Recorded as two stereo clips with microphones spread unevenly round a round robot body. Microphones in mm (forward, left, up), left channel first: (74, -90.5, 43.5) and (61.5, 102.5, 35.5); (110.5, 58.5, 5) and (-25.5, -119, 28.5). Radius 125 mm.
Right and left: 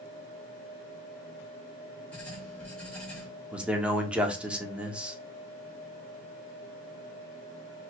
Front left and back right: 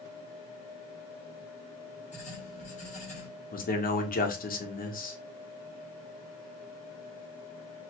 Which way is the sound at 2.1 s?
Straight ahead.